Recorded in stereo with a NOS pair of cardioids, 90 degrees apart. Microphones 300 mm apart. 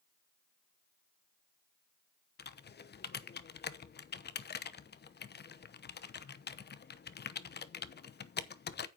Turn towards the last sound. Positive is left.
turn(degrees=35)